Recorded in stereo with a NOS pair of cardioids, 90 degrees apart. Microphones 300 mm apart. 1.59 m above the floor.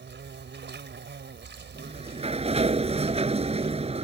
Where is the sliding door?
20° right.